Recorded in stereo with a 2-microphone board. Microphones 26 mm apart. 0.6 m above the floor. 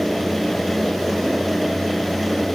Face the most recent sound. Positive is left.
No sound to turn to.